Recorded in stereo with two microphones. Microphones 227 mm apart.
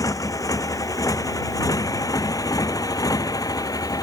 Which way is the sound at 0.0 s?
15° left (ahead or behind).